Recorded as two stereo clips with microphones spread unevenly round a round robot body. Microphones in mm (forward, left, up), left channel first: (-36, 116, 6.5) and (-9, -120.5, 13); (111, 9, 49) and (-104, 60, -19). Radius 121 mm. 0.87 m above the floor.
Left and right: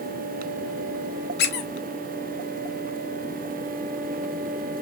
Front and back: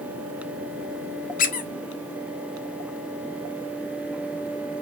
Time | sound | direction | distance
1.4 | a squeak | 45° left | 0.6 m